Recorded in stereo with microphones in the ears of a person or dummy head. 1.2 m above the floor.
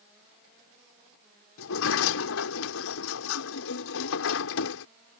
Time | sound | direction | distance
1.6 | a sliding door | 85° left | ?